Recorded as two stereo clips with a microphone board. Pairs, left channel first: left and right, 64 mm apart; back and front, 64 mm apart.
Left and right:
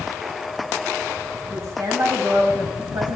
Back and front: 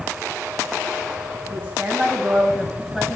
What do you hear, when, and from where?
1.5 s a woman speaking: 55° right, 3.5 m; by 3.2 s 95° right, 3 m